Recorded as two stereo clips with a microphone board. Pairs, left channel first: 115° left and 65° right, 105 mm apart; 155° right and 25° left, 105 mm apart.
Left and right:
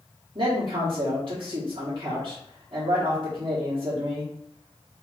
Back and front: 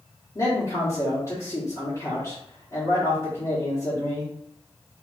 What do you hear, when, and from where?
0.3 s a man speaking: 105° right, 1.5 m